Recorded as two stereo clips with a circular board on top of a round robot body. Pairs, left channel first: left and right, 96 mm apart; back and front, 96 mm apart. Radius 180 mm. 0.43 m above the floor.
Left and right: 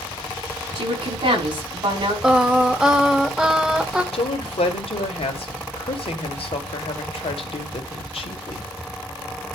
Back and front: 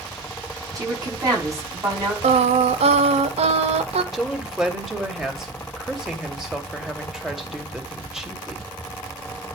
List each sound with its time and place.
0.8 s a woman speaking: 55° right, 6 m
2.2 s singing: 5° right, 0.7 m
4.1 s a woman speaking: 85° left, 2.5 m